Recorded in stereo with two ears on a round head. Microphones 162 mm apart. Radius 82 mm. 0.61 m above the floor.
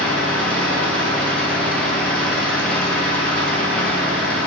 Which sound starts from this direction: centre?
An engine running, at 0.0 s.